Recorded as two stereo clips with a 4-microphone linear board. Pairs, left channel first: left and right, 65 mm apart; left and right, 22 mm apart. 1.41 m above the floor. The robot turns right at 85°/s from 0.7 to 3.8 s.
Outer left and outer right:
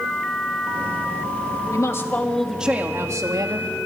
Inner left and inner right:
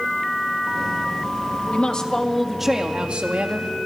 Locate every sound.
1.7 s a woman speaking: 115° left, 2.0 m; by 3.7 s 80° right, 2.0 m